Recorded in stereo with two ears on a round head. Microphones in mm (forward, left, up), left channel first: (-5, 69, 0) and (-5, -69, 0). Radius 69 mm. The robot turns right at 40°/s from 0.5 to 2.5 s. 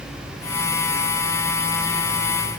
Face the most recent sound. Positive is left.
No sound to turn to.